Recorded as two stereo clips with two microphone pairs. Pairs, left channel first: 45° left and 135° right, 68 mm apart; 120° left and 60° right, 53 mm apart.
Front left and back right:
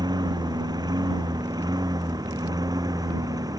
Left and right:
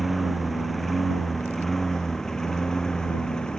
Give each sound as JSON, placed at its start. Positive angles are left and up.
{"t": 0.0, "sound": "a lawn mower", "azimuth_deg": -150}